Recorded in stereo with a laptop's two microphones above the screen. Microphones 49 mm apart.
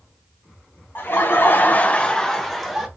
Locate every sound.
0.9 s laughter: 45° left (ahead or behind), 0.8 m; by 2.9 s 5° right (ahead or behind), 1.0 m